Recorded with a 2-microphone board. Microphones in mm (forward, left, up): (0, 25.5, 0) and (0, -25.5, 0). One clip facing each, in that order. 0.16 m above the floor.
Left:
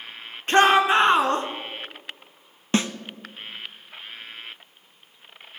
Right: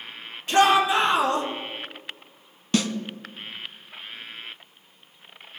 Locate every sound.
0.5 s a shout: 40° left (ahead or behind), 1.8 m
2.7 s a snare drum: 30° left (ahead or behind), 0.7 m